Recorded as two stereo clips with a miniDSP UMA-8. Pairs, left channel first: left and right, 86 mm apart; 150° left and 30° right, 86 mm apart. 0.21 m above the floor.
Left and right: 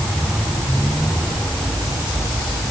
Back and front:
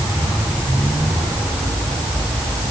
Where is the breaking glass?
I don't hear breaking glass.